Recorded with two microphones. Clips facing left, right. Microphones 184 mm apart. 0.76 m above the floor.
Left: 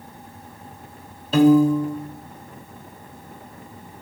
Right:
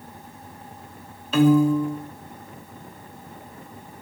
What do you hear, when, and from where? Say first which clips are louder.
1.3 s a piano: left 3 dB; 40° left (ahead or behind), 1.1 m